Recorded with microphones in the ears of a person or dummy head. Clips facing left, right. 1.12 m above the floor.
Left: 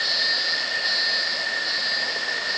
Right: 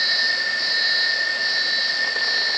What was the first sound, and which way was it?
Only background noise.